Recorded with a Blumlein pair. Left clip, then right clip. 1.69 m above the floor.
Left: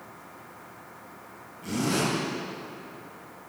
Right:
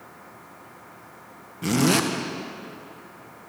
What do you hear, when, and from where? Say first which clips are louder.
1.6 s a zipper: right 6 dB; 55° right, 1.7 m